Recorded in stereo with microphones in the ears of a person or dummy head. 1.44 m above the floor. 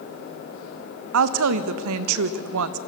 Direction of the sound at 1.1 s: 75° right (ahead or behind).